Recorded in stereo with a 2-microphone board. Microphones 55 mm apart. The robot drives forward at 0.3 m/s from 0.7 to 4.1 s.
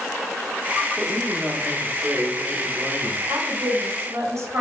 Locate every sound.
1.0 s a woman speaking: 20° right (ahead or behind), 1.2 m; by 3.2 s 15° right (ahead or behind), 1.7 m
3.3 s a woman speaking: 60° right (ahead or behind), 2 m; by 4.6 s 55° right (ahead or behind), 2 m